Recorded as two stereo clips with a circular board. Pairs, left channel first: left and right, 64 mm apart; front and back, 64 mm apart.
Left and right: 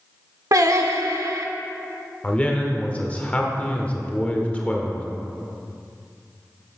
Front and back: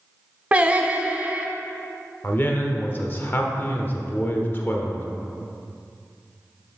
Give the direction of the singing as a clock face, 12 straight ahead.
4 o'clock.